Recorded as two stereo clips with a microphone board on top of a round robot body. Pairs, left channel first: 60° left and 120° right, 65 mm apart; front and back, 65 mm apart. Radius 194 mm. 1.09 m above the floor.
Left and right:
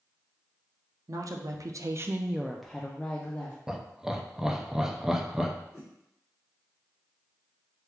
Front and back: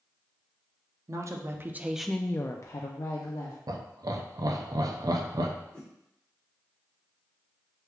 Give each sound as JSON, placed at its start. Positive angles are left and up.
{"t": 1.1, "sound": "a woman speaking", "azimuth_deg": -145, "distance_m": 0.8}
{"t": 3.7, "sound": "laughter", "azimuth_deg": 160, "distance_m": 0.6}
{"t": 5.7, "sound": "a whoosh", "azimuth_deg": -20, "distance_m": 1.3}